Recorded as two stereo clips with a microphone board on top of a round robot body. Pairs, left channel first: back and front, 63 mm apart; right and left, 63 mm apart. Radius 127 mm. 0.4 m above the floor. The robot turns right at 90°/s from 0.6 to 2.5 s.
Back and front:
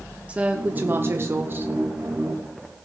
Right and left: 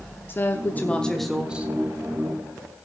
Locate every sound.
0.3 s a woman speaking: 60° right, 0.9 m; by 1.7 s 45° left, 0.9 m